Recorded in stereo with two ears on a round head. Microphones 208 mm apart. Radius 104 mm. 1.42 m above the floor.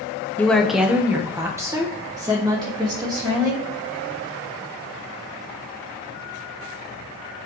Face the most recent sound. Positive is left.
turn(degrees=-20)  # may be behind; listen again after turning